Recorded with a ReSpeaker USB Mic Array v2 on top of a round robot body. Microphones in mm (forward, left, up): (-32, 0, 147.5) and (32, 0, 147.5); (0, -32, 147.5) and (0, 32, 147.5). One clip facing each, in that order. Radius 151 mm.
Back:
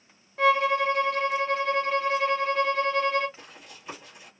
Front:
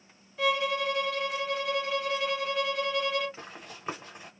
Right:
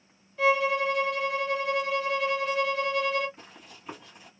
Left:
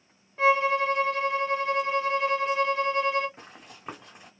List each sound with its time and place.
0.4 s a violin: 135° left, 1.9 m
3.4 s running footsteps: 55° left, 1.3 m